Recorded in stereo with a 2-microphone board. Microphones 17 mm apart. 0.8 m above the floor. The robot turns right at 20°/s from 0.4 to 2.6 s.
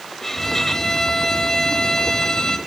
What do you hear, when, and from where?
0.2 s a violin: 40° left, 1.1 m; by 2.6 s 80° left, 1.1 m